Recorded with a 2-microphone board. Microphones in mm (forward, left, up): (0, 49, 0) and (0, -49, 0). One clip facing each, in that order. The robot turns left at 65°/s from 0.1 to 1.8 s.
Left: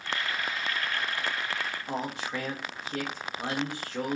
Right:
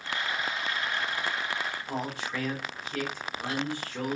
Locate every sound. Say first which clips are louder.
1.9 s a man speaking: left 3 dB; 25° left (ahead or behind), 1.0 m